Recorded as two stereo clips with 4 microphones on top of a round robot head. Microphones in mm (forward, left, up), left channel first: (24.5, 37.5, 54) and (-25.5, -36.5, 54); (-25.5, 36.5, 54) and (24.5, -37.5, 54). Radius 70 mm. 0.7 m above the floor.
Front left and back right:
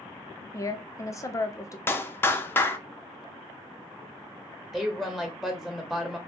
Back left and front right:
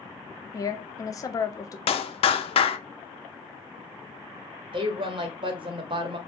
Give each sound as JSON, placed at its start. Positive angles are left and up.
{"t": 0.5, "sound": "a woman speaking", "azimuth_deg": 90, "distance_m": 0.7}
{"t": 1.9, "sound": "a clap", "azimuth_deg": 125, "distance_m": 0.6}
{"t": 4.7, "sound": "a woman speaking", "azimuth_deg": -35, "distance_m": 1.0}